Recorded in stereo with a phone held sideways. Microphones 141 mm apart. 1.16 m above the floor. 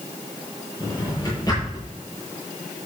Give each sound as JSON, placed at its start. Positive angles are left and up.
{"t": 0.8, "sound": "a drawer", "side_deg": 25, "distance_m": 7.5}